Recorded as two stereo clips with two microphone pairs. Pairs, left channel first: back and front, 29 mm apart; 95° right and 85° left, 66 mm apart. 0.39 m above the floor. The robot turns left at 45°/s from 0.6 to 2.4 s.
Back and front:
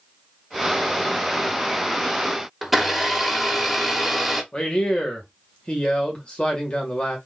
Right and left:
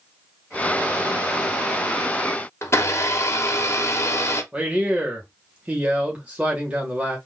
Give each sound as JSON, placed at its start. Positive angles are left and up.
{"t": 2.6, "sound": "a blender", "azimuth_deg": -85, "distance_m": 0.8}
{"t": 4.5, "sound": "a man speaking", "azimuth_deg": 140, "distance_m": 1.0}